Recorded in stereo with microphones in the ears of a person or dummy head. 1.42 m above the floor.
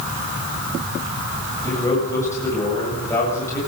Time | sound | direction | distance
1.6 | a man speaking | 10° left (ahead or behind) | 8.5 m